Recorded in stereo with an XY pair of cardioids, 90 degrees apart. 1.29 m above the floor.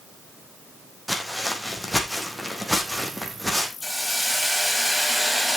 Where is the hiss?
5° left, 7 m.